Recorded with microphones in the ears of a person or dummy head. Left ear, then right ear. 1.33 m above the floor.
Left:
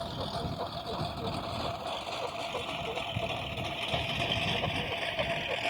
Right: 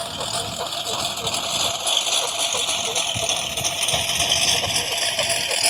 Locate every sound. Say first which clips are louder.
0.0 s a lawn mower: right 10 dB; 70° right (ahead or behind); by 5.7 s 85° right